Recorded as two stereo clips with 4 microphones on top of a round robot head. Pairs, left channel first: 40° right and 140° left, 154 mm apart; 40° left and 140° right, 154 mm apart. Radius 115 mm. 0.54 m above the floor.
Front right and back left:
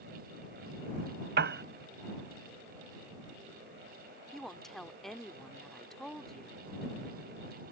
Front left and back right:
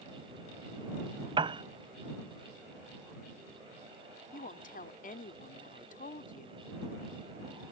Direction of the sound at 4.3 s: 50° left.